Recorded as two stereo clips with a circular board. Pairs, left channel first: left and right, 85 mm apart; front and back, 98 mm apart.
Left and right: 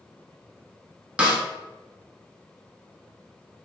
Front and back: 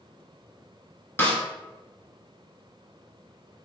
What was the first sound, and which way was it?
A snare drum, 35° right.